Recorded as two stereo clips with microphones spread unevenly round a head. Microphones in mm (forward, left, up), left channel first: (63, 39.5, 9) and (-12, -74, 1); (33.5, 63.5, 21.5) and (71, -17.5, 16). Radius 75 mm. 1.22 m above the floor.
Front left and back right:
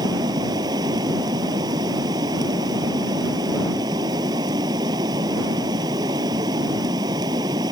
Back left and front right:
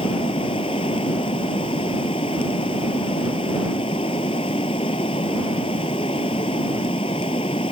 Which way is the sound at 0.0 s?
170° left.